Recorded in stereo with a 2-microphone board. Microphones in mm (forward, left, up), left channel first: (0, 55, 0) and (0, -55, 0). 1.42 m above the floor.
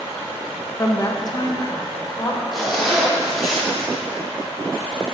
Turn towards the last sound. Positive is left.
turn(degrees=0)  # may be behind; listen again after turning